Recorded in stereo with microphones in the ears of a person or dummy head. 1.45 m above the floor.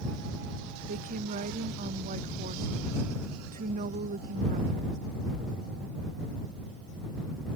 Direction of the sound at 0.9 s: 40° right (ahead or behind).